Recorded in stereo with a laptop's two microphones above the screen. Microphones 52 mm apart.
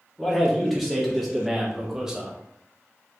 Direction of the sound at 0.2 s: Centre (ahead or behind).